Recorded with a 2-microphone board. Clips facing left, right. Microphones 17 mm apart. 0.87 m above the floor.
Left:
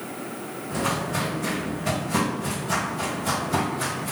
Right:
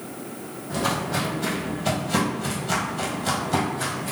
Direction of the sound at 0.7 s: 65° right (ahead or behind).